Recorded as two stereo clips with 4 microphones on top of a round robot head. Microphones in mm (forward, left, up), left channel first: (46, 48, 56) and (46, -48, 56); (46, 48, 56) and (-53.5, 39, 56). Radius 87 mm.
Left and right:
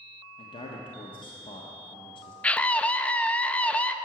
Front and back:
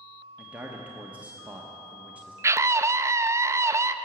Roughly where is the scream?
Behind left.